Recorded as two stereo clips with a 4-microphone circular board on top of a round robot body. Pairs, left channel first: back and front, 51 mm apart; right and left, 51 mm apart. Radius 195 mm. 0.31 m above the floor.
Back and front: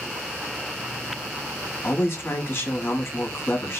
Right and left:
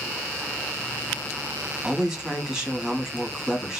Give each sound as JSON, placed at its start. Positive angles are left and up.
{"t": 1.8, "sound": "a man speaking", "azimuth_deg": 150, "distance_m": 1.1}